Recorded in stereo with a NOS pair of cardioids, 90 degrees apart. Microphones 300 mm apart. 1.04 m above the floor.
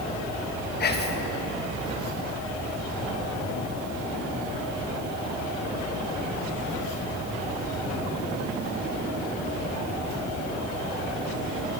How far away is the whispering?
About 0.8 m.